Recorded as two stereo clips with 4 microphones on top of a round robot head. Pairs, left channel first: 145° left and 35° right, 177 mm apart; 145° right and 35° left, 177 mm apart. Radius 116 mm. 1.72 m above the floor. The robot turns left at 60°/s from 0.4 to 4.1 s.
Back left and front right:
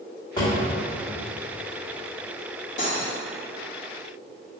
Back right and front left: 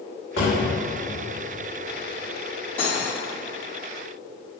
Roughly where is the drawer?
Behind right.